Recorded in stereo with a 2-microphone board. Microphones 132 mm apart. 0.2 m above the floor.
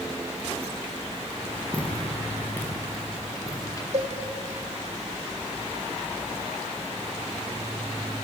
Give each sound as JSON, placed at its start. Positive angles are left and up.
{"t": 1.7, "sound": "footsteps", "side_deg": 10, "distance_m": 7.0}
{"t": 3.9, "sound": "a cowbell", "side_deg": -60, "distance_m": 2.5}